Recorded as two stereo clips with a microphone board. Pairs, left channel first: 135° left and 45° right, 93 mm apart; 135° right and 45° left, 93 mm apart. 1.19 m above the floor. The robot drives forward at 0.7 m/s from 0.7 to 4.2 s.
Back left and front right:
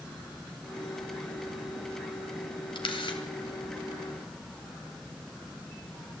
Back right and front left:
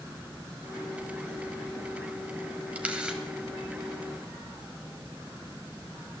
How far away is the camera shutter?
About 1.9 m.